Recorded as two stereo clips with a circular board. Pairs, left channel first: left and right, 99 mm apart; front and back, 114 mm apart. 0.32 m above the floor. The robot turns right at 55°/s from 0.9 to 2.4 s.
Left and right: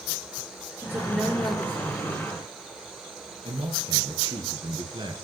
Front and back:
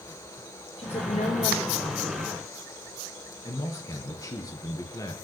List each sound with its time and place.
0.8 s a woman speaking: 25° right, 8.5 m; by 2.2 s 50° left, 8.5 m
3.5 s a man speaking: 55° right, 4.5 m